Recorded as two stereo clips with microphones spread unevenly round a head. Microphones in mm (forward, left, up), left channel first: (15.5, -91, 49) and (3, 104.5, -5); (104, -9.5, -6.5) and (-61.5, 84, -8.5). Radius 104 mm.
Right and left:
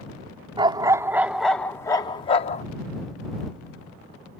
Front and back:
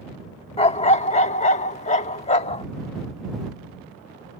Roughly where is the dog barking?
Ahead.